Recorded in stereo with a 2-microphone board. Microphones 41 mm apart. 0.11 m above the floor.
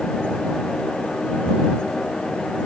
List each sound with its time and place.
Only background noise.